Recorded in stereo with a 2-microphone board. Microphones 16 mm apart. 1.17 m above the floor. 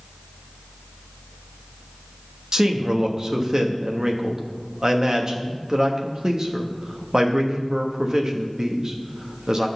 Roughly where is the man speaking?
Right.